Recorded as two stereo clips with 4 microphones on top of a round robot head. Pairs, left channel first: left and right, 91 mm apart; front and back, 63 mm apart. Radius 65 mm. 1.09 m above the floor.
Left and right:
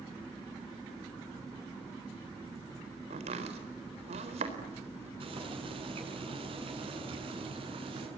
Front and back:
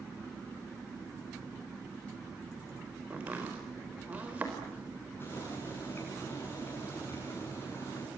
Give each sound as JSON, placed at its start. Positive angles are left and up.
{"t": 3.1, "sound": "chopping", "azimuth_deg": -105, "distance_m": 4.0}
{"t": 5.2, "sound": "boiling", "azimuth_deg": -65, "distance_m": 8.0}